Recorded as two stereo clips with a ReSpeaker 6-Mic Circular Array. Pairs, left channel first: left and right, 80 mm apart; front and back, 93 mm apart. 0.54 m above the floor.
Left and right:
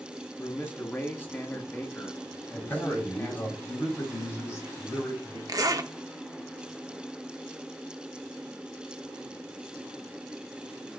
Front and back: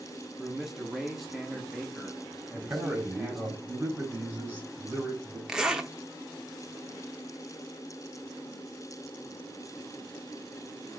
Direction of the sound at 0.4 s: 90° left.